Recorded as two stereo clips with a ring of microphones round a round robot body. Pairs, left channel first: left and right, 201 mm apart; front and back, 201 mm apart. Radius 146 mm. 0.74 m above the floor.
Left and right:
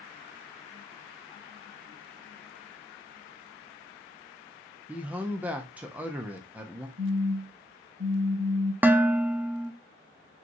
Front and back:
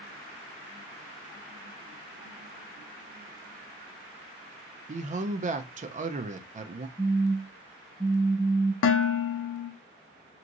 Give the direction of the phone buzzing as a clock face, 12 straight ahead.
4 o'clock.